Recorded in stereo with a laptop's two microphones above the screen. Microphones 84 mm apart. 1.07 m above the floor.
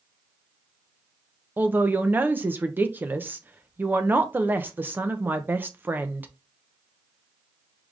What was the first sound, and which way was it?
A man speaking, 20° right (ahead or behind).